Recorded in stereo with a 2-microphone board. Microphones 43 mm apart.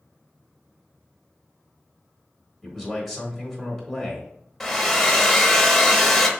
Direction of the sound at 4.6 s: 5° left (ahead or behind).